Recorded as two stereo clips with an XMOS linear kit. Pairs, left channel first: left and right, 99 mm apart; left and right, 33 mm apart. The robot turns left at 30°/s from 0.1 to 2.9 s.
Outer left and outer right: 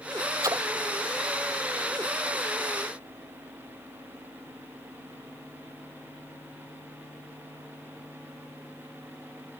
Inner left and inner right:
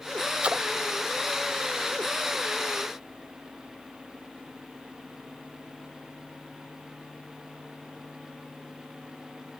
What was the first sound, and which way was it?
A splash, 40° right (ahead or behind).